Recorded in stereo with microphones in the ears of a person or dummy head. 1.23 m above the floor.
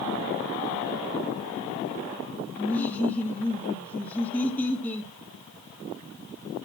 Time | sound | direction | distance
2.6 | laughter | 15° left (ahead or behind) | 3 m